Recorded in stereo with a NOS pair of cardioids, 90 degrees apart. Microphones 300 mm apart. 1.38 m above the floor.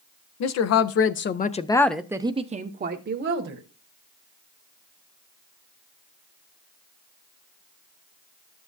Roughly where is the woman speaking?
Left.